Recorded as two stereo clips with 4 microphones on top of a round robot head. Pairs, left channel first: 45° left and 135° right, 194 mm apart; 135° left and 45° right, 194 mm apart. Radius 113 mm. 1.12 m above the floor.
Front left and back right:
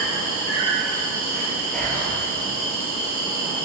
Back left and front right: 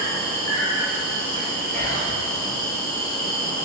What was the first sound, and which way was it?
An insect, 80° left.